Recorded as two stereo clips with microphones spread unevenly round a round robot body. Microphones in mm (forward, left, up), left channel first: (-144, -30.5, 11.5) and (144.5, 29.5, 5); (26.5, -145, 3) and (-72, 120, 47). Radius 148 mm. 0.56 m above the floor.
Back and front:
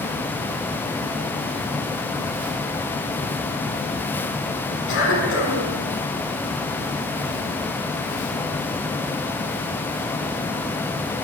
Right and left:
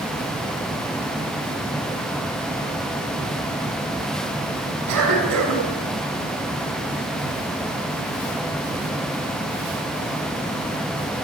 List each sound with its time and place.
4.9 s a cough: 140° left, 6.5 m